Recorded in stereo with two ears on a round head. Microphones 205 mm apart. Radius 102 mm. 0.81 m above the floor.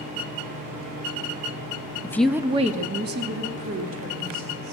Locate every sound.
2.0 s a woman speaking: 15° left (ahead or behind), 0.7 m; by 4.7 s 65° right (ahead or behind), 2.5 m